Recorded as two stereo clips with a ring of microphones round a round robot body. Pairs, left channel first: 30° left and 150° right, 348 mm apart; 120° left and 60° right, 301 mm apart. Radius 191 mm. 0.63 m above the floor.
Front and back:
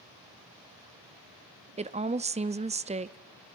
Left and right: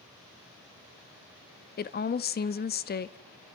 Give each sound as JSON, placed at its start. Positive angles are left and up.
{"t": 1.8, "sound": "a woman speaking", "azimuth_deg": 150, "distance_m": 0.7}